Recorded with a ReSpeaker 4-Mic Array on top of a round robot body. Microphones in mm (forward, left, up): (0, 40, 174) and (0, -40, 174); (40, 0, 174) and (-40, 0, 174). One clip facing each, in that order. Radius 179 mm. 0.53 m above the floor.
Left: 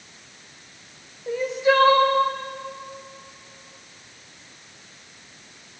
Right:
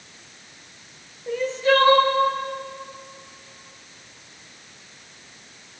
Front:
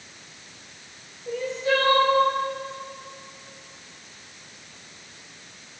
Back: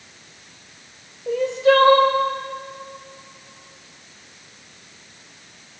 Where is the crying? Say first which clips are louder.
Even, back 8 dB; 165° left, 2.5 m.